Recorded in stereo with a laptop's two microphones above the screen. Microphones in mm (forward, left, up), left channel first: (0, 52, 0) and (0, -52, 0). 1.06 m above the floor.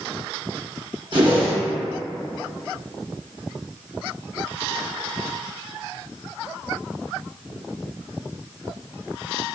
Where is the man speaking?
I don't hear a man speaking.